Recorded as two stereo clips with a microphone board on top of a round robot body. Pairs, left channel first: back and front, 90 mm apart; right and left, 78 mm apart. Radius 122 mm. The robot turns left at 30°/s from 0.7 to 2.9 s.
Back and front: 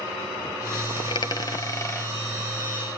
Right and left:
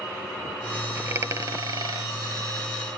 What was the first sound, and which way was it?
A dropped coin, 150° left.